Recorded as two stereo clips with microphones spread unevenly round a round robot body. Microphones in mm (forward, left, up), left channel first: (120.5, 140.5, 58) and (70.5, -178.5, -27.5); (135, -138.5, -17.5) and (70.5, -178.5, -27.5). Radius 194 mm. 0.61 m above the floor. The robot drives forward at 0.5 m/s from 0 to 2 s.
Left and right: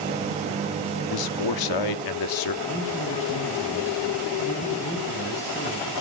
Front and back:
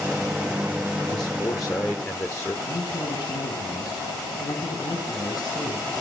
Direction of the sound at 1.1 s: 85° left.